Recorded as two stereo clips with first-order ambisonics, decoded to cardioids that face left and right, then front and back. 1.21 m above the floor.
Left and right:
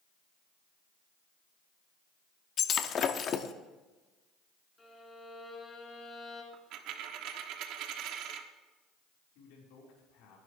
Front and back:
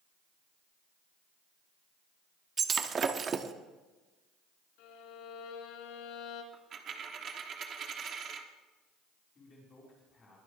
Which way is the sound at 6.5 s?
120° right.